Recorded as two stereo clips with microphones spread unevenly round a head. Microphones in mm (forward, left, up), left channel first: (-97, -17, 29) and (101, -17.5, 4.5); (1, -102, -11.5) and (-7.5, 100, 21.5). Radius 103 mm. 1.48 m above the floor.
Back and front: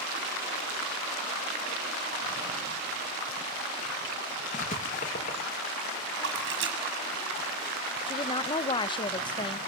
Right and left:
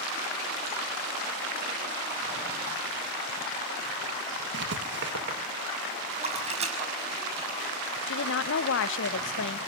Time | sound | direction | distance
4.5 | writing | 125° left | 2.5 m
6.2 | a splash | 35° left | 6 m
8.1 | a woman speaking | 115° right | 1.0 m